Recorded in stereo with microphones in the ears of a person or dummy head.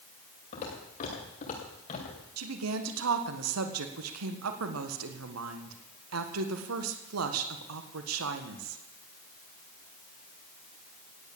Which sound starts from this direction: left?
Footsteps, at 0.5 s.